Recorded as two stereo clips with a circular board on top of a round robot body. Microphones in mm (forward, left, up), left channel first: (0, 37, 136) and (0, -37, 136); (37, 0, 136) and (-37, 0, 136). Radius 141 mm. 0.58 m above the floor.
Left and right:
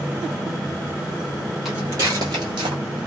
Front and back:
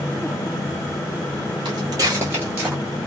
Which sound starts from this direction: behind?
Footsteps, at 1.6 s.